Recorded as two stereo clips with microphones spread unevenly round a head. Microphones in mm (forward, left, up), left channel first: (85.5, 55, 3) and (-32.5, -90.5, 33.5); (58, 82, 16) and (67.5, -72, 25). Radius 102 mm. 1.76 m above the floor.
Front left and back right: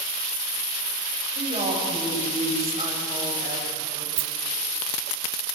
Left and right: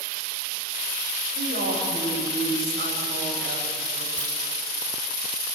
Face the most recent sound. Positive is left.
turn(degrees=-165)